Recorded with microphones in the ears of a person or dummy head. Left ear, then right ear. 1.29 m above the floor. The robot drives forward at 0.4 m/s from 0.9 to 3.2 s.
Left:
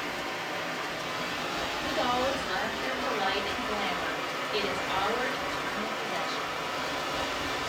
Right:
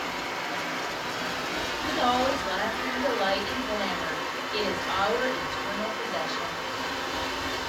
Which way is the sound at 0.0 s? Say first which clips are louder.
Right 2 dB; 5° right (ahead or behind).